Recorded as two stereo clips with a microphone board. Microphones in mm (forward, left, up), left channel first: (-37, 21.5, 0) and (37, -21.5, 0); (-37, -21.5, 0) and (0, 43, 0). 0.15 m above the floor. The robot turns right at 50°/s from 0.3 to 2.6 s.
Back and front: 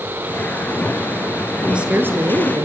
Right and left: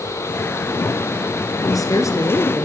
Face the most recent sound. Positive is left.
turn(degrees=-65)